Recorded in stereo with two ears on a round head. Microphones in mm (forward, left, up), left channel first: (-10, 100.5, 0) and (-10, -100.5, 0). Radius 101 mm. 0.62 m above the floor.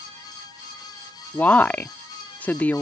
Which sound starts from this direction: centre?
A woman speaking, at 1.3 s.